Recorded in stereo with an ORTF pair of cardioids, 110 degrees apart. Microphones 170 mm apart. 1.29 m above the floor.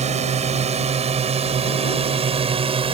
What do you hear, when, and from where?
0.0 s a drone: 40° right; by 3.0 s 35° right